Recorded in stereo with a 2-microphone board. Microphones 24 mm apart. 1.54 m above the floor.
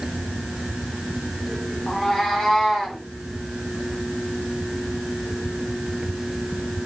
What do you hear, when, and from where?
1.9 s a cat meowing: 20° left (ahead or behind), 1.7 m; by 3.0 s 10° left (ahead or behind), 1.3 m